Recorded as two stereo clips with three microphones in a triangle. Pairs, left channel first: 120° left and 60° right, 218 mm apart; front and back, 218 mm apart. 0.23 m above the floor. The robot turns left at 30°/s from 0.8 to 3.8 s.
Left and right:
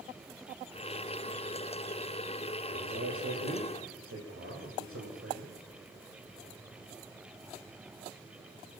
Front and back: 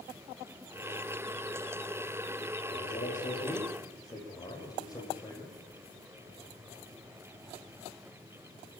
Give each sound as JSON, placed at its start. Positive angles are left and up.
{"t": 2.7, "sound": "a man speaking", "azimuth_deg": -40, "distance_m": 7.5}